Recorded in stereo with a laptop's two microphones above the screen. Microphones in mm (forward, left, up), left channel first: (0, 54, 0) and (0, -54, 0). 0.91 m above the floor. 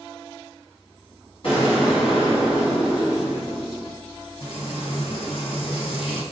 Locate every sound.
1.4 s an explosion: 55° left (ahead or behind), 1.6 m
4.4 s frying: 60° left (ahead or behind), 0.8 m